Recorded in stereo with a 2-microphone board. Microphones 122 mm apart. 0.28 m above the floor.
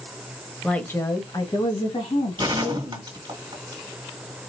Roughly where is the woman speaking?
Centre.